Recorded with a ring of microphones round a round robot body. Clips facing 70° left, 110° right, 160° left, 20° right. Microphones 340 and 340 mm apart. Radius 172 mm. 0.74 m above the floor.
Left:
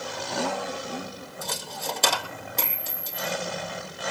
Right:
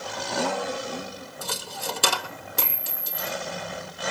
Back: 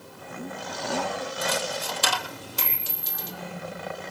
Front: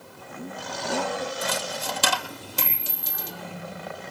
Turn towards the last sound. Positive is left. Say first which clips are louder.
# even, back 1 dB
turn(degrees=-40)